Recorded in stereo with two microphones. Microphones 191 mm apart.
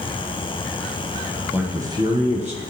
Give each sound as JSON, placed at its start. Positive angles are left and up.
{"t": 1.5, "sound": "a man speaking", "side_deg": -10, "distance_m": 1.2}